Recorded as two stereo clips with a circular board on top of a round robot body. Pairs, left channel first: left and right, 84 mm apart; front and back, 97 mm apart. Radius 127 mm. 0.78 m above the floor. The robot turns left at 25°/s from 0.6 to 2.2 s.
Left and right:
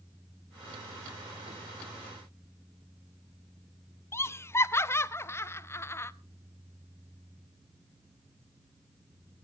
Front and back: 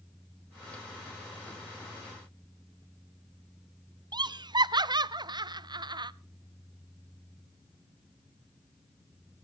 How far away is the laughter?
About 0.9 m.